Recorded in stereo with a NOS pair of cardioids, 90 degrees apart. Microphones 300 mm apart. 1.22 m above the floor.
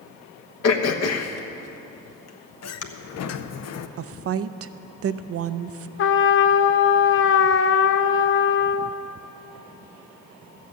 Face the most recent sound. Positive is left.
turn(degrees=45)